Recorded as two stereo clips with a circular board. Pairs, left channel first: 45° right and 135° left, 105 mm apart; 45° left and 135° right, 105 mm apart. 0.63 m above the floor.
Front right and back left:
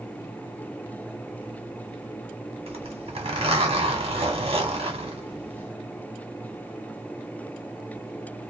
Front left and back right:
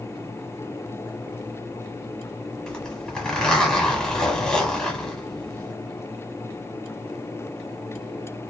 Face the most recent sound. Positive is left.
turn(degrees=125)